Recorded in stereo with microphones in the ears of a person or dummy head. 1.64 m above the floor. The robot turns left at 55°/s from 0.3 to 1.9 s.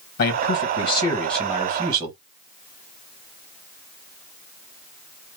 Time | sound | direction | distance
0.2 | a man speaking | 60° left | 1.6 m